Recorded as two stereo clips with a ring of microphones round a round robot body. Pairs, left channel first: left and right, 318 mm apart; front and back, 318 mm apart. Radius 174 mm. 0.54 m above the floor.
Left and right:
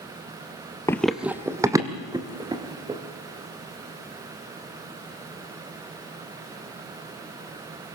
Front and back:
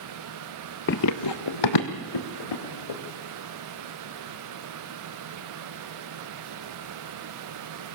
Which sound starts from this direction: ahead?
Running footsteps, at 0.9 s.